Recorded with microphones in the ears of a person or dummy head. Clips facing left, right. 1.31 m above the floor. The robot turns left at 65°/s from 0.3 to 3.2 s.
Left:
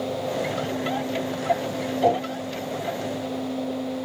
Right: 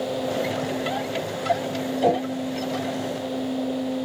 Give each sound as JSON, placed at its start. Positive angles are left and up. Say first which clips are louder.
{"t": 2.0, "sound": "a whoosh", "louder": "even", "side_deg": -5, "distance_m": 2.5}